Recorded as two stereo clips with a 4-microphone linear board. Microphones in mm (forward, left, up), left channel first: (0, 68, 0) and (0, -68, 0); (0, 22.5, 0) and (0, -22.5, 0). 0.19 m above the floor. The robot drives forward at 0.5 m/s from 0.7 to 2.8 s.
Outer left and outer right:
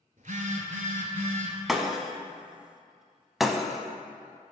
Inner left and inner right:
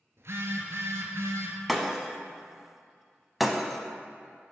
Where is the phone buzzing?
70° right (ahead or behind), 0.9 m.